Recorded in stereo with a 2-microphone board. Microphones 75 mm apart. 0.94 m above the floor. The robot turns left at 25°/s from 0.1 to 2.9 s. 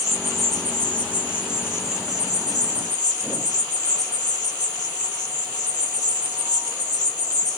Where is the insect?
175° right, 1.8 m; by 7.6 s 115° left, 1.8 m.